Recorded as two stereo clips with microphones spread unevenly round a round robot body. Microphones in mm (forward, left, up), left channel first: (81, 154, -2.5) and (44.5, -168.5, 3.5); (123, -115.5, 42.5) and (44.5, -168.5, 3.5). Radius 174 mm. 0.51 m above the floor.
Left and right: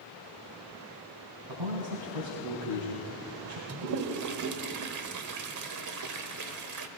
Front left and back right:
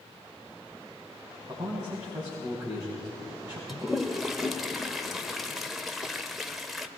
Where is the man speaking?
100° right, 4 m.